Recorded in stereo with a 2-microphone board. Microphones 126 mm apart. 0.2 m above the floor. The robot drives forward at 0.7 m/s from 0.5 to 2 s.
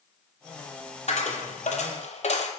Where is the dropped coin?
65° left (ahead or behind), 0.7 m; by 2.5 s 60° left (ahead or behind), 0.7 m.